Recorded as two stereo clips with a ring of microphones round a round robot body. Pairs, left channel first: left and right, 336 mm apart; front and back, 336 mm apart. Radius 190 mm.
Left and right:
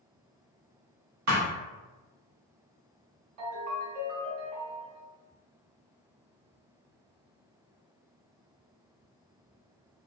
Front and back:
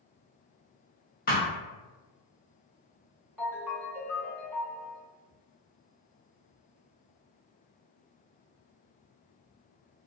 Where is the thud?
60° right, 0.8 m.